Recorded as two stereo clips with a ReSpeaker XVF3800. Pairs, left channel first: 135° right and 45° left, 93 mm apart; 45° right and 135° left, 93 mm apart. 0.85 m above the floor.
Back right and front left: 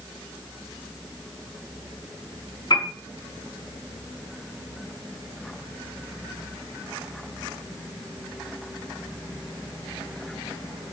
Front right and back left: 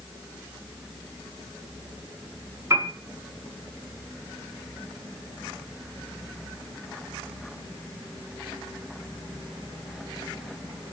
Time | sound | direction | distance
2.7 | a piano | 170° right | 6 m